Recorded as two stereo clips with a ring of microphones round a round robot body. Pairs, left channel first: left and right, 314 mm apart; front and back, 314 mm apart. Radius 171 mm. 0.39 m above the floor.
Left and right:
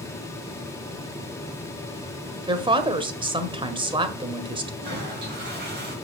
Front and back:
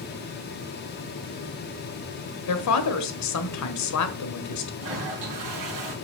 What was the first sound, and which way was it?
A woman speaking, 20° right.